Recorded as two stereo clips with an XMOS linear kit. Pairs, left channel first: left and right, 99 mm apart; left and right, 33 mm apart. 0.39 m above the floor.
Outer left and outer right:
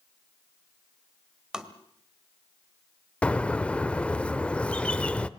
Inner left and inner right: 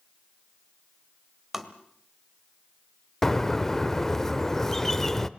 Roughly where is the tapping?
Centre.